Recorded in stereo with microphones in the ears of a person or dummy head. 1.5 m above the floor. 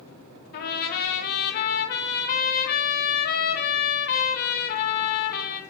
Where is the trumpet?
45° left (ahead or behind), 0.5 m.